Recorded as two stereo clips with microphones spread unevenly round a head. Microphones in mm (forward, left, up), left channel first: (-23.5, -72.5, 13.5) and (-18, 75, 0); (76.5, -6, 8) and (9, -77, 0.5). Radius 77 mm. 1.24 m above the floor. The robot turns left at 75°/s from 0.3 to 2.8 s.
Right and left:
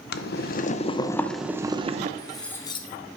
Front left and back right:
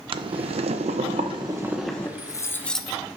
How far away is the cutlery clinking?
About 0.6 m.